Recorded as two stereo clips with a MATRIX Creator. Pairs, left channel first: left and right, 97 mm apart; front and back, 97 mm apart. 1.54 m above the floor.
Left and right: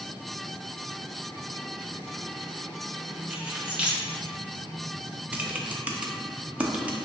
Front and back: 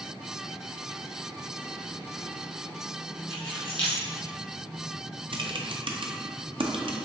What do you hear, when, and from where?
3.3 s keys jangling: 10° right, 1.1 m
5.3 s typing on a keyboard: 165° right, 0.5 m